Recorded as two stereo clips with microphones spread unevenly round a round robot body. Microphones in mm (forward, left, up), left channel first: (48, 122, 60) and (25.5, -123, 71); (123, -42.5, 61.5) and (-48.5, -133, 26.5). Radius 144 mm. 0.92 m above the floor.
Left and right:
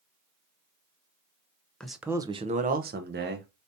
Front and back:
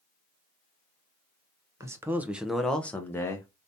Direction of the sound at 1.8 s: 165° left.